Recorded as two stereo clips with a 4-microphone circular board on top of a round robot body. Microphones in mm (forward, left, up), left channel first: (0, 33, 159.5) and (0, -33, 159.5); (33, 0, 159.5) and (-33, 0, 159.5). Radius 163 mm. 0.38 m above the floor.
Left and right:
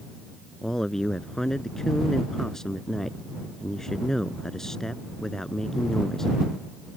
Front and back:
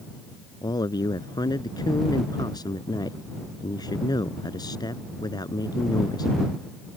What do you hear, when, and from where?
0.6 s a man speaking: 10° left